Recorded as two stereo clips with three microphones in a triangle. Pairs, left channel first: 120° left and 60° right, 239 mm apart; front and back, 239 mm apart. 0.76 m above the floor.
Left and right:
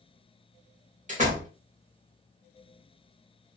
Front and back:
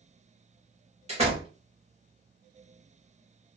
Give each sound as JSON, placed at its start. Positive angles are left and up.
{"t": 1.1, "sound": "a door slam", "azimuth_deg": -120, "distance_m": 1.5}